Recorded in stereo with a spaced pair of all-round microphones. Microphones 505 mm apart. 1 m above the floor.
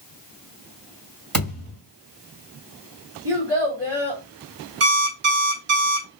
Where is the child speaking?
55° right (ahead or behind), 1.4 m.